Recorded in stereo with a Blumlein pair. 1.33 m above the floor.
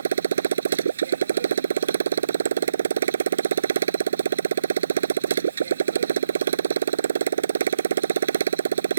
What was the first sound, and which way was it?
A motorcycle, 65° right.